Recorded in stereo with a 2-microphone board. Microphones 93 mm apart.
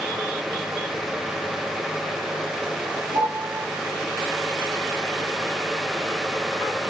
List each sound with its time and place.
3.1 s a piano: 80° right, 7 m